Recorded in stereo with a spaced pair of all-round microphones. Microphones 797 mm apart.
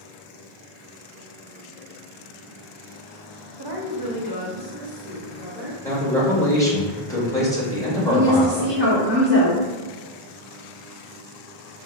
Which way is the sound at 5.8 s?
5° left (ahead or behind).